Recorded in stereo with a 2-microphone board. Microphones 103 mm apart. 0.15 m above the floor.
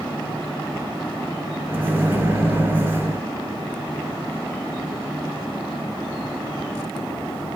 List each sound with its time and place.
1.7 s a microwave: 20° right (ahead or behind), 1.1 m